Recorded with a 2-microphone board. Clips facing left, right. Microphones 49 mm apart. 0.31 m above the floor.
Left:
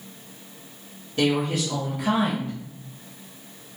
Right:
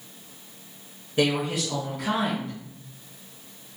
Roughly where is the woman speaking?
Centre.